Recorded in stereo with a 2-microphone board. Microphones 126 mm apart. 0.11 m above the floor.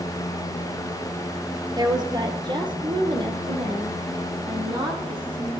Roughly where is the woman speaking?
Right.